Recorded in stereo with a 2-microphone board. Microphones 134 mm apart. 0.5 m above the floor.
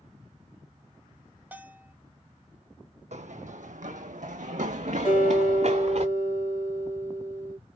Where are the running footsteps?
60° right (ahead or behind), 1.0 m; by 6.0 s 55° right (ahead or behind), 2 m.